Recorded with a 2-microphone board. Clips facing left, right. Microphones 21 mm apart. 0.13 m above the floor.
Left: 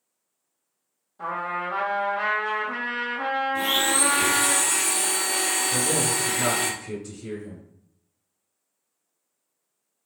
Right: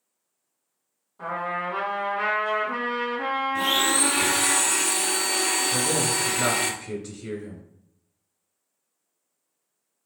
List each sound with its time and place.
1.2 s a trumpet: 15° left (ahead or behind), 1.7 m
3.5 s a blender: 20° right (ahead or behind), 0.6 m
5.7 s a man speaking: 25° right (ahead or behind), 1.1 m